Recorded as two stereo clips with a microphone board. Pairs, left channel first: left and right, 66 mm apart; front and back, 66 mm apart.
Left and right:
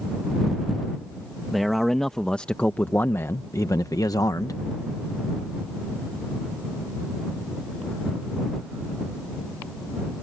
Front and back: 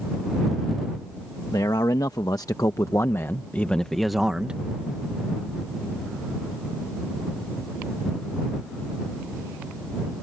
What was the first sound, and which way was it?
A man speaking, straight ahead.